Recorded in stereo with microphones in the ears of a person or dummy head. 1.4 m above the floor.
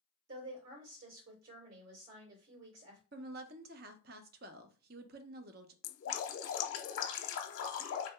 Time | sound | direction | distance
0.3 | a woman speaking | 80° right | 1.9 m
3.1 | a woman speaking | 45° right (ahead or behind) | 0.5 m
5.8 | dripping | 70° left (ahead or behind) | 0.8 m